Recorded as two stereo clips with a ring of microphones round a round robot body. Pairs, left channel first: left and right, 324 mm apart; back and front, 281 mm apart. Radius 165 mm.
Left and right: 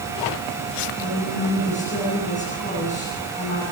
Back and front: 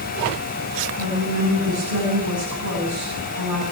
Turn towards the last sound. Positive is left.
turn(degrees=20)